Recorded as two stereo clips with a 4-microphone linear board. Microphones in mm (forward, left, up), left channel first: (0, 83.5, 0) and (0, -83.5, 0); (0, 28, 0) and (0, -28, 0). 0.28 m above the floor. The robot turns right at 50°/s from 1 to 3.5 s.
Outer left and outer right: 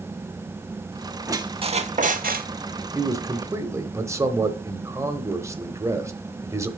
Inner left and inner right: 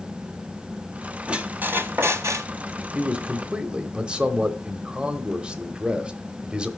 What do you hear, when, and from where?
1.3 s a squeak: 160° right, 0.6 m; by 2.5 s 100° right, 0.6 m
3.0 s a man speaking: 20° right (ahead or behind), 0.9 m; by 6.7 s 15° right (ahead or behind), 0.9 m